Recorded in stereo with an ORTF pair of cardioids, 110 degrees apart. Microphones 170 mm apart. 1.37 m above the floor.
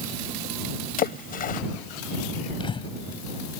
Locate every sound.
1.0 s a splash: 55° left
2.6 s breathing: 30° left